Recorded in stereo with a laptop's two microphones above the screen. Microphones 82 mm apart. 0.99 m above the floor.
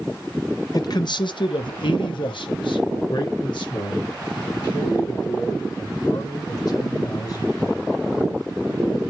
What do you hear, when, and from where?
0.7 s a man speaking: 50° left (ahead or behind), 0.6 m; by 7.8 s 55° left (ahead or behind), 4 m